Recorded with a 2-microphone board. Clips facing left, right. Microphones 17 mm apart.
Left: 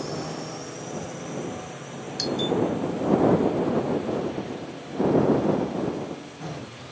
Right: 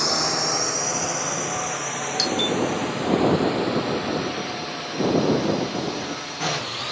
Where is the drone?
60° right (ahead or behind); by 6.9 s 65° right (ahead or behind).